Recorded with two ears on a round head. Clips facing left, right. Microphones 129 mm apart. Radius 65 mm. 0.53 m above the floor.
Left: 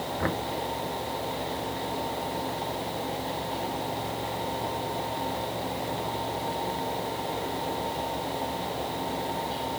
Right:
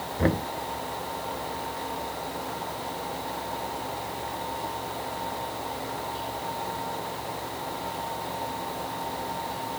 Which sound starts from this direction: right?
Knocking, at 0.2 s.